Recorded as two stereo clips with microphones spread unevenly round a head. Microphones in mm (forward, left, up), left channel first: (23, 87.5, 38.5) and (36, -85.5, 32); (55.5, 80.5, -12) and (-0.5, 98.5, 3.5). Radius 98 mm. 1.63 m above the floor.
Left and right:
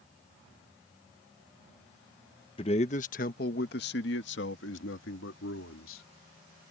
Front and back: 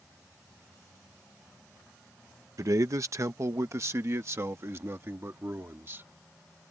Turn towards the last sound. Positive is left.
turn(degrees=115)